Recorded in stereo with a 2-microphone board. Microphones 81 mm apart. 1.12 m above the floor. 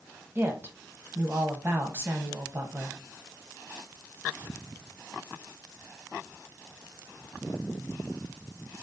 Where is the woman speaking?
30° right (ahead or behind), 1.1 m.